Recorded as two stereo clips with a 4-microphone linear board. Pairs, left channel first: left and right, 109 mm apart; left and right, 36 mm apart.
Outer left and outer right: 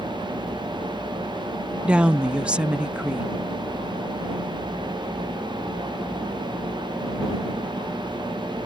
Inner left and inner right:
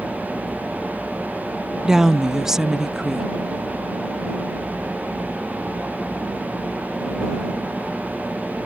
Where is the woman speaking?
10° right (ahead or behind).